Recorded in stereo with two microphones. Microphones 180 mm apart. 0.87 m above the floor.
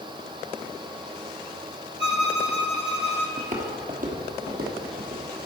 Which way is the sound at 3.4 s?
40° right (ahead or behind).